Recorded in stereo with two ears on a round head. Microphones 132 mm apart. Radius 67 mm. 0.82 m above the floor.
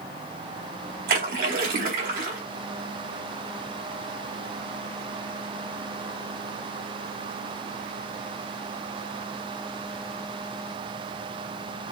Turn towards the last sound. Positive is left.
turn(degrees=-70)  # may be behind; listen again after turning